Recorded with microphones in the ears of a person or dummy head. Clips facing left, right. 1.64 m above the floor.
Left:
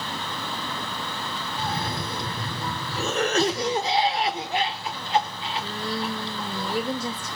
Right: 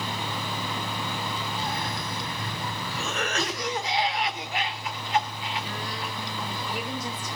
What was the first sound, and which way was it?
A cough, 25° left (ahead or behind).